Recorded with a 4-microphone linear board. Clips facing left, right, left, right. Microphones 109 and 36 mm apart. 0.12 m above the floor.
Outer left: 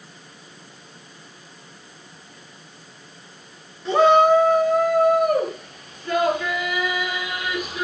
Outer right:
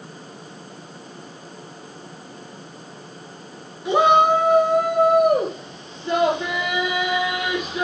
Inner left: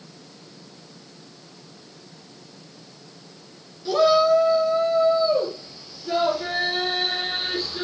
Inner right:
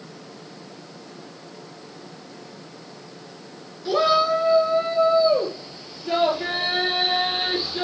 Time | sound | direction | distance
3.9 | a shout | 15° right (ahead or behind) | 1.9 m